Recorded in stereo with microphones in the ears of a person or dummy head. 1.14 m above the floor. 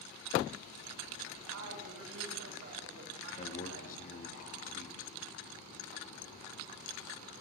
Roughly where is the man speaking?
Left.